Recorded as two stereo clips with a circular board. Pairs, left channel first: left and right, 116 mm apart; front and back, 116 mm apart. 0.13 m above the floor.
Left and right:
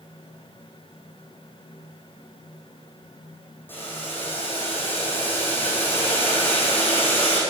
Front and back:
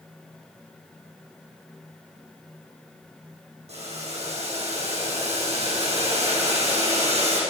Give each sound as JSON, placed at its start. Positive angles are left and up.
{"t": 3.7, "sound": "boiling", "azimuth_deg": 160, "distance_m": 5.0}